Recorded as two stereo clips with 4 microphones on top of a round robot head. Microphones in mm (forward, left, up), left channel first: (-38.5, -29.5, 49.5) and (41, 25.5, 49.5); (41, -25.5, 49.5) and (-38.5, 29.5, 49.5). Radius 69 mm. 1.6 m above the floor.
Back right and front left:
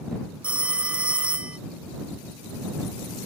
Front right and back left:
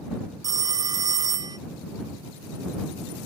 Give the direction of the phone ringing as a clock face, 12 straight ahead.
8 o'clock.